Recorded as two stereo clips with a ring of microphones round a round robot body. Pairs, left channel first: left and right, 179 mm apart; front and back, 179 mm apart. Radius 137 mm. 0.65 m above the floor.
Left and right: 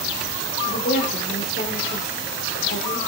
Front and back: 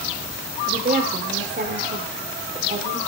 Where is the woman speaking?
140° left, 2 m.